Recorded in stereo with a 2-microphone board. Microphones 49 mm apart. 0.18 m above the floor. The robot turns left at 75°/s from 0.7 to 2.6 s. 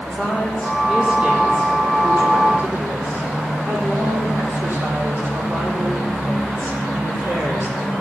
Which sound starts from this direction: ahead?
A woman speaking, at 0.1 s.